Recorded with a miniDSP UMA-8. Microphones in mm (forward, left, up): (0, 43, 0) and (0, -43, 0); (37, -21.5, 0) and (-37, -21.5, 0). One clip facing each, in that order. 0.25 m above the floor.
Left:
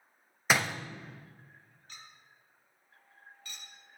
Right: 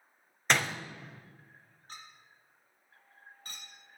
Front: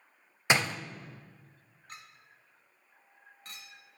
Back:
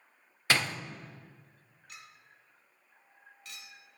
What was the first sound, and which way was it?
A door slam, 20° left.